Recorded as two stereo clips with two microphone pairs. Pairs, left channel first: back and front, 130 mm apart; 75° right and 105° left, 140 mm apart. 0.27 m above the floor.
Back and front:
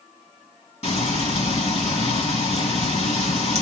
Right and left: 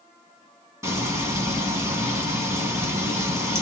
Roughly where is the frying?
Behind.